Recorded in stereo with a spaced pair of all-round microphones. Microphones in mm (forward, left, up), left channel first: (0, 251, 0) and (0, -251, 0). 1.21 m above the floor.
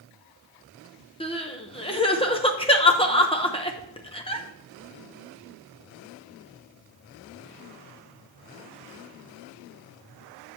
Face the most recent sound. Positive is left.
turn(degrees=10)  # may be behind; listen again after turning